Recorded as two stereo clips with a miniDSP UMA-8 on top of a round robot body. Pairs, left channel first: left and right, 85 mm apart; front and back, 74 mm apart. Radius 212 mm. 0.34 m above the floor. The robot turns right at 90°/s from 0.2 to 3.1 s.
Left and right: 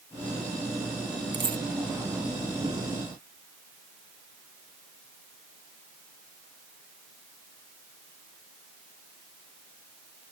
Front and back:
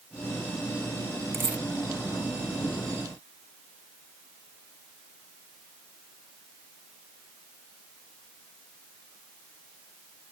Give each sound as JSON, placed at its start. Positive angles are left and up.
{"t": 1.3, "sound": "a dropped coin", "azimuth_deg": -125}